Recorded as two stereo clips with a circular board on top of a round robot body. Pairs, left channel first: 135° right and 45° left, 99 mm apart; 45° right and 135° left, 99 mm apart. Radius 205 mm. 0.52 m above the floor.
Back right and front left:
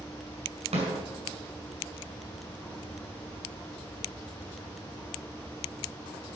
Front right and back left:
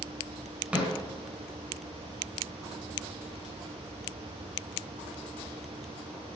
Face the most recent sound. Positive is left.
turn(degrees=55)